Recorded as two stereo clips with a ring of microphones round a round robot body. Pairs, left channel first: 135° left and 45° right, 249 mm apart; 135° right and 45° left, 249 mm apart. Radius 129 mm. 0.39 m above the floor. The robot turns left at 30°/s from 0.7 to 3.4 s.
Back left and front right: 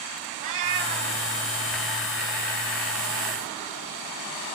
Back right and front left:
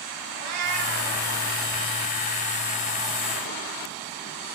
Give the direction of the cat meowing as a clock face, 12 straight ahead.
11 o'clock.